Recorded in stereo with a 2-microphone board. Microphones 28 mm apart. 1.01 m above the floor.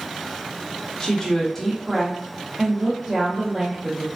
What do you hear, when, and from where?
1.0 s a woman speaking: 25° left (ahead or behind), 0.8 m; by 4.1 s 40° right (ahead or behind), 1.3 m